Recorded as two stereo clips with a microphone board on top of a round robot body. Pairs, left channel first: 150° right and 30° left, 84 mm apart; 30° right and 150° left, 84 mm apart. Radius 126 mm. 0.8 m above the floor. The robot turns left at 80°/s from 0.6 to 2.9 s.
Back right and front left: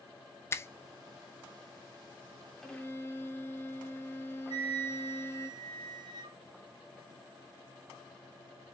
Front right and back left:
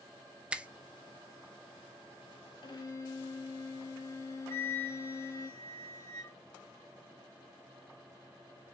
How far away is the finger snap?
About 0.7 m.